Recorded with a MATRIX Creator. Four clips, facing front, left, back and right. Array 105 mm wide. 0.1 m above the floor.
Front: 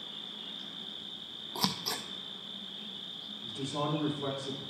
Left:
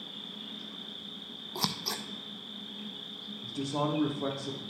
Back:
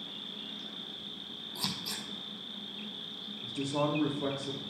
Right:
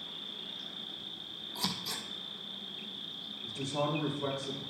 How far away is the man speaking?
About 4 m.